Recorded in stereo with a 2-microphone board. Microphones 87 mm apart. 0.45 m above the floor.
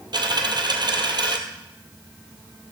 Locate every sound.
0.1 s a dropped coin: 60° right (ahead or behind), 1.5 m